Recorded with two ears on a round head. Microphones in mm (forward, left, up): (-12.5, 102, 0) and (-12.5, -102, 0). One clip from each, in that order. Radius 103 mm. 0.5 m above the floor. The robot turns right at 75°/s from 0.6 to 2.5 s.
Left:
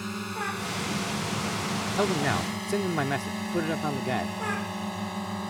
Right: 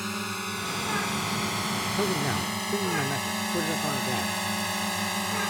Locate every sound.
0.0 s a drone: 30° right (ahead or behind); by 5.5 s 60° right (ahead or behind)
1.9 s a man speaking: 35° left; by 4.3 s 75° left